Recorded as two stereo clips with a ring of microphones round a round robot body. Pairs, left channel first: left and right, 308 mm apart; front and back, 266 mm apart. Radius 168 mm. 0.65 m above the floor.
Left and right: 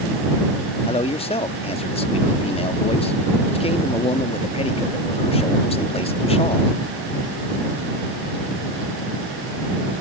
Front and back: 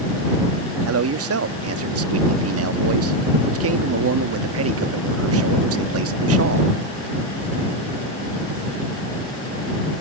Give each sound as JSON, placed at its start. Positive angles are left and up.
{"t": 0.9, "sound": "a man speaking", "azimuth_deg": 160}